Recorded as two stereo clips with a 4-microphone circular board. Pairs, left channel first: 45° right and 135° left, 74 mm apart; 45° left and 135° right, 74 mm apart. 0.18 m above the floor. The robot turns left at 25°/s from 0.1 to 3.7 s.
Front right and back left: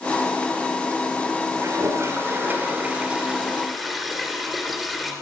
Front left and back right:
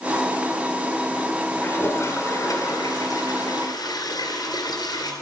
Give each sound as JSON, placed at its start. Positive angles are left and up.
{"t": 1.6, "sound": "a toilet flushing", "azimuth_deg": 100, "distance_m": 2.0}